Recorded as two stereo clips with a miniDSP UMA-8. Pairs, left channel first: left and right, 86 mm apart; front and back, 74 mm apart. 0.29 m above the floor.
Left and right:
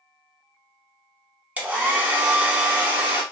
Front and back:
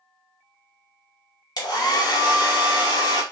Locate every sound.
1.6 s a hair dryer: 20° right, 0.8 m